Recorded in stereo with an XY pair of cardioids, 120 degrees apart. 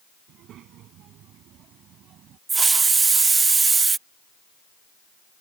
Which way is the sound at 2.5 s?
30° right.